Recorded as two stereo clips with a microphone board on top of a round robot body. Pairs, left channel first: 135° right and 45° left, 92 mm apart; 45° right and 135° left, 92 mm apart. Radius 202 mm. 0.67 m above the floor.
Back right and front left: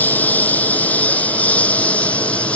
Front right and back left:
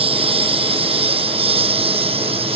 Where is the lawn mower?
150° left; by 2.6 s 145° left.